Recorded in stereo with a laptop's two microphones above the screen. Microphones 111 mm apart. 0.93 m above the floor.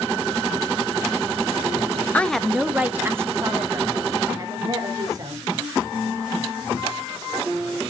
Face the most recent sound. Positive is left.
turn(degrees=-35)  # may be behind; listen again after turning